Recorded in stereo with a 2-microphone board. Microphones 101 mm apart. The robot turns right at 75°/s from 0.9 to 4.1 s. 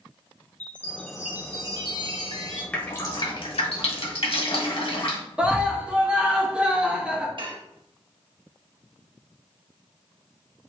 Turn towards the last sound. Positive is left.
turn(degrees=-55)  # may be behind; listen again after turning